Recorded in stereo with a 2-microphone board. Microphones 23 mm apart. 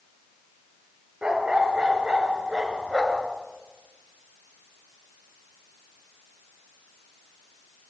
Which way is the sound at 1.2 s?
40° right (ahead or behind).